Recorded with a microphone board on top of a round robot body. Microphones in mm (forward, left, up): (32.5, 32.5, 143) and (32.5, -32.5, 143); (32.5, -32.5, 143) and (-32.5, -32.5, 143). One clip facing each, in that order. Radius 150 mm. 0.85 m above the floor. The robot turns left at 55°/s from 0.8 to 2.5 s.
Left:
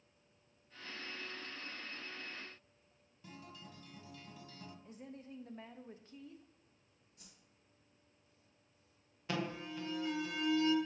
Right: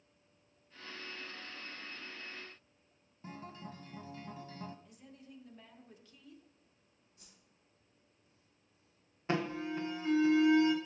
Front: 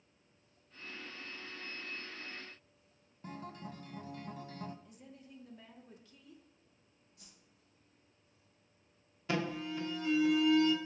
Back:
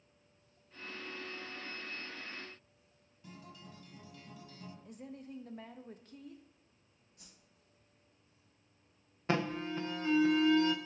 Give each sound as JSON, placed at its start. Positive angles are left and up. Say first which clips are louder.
{"t": 3.2, "sound": "a guitar", "louder": "right 6 dB, front 7 dB", "azimuth_deg": -40, "distance_m": 0.8}
{"t": 4.8, "sound": "a woman speaking", "louder": "left 5 dB, back 7 dB", "azimuth_deg": 145, "distance_m": 0.9}
{"t": 7.2, "sound": "a whoosh", "louder": "left 1 dB, back 1 dB", "azimuth_deg": 130, "distance_m": 3.0}
{"t": 9.3, "sound": "an alarm", "louder": "right 5 dB, back 2 dB", "azimuth_deg": -140, "distance_m": 1.3}